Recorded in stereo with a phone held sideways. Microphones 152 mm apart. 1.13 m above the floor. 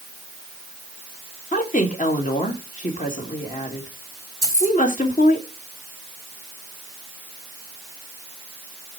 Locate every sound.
1.5 s a woman speaking: 60° left (ahead or behind), 2 m
4.4 s keys jangling: 20° right (ahead or behind), 4.5 m